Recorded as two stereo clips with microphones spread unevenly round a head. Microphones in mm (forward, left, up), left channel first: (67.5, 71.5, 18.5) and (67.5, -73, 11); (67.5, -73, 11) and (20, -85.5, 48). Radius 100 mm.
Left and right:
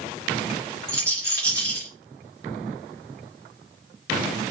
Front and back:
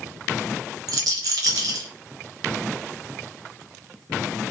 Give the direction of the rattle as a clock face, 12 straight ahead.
6 o'clock.